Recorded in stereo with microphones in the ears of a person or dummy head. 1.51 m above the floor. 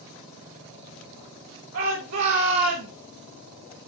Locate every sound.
1.7 s a shout: 65° right (ahead or behind), 3 m; by 2.9 s 60° right (ahead or behind), 2 m